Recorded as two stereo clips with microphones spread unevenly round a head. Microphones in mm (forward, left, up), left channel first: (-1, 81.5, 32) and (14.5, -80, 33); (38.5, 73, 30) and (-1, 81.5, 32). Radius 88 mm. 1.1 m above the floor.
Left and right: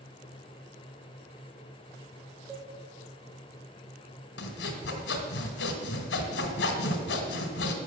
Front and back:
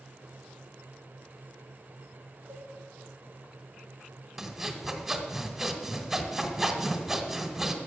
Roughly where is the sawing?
Left.